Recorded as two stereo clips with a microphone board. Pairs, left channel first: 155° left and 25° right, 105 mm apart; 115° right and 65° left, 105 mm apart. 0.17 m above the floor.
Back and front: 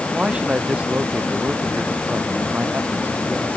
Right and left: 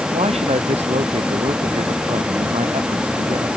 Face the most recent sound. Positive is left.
turn(degrees=50)